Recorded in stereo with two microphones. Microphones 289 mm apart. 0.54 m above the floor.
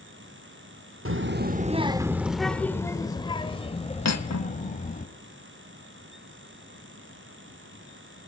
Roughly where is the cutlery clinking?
Left.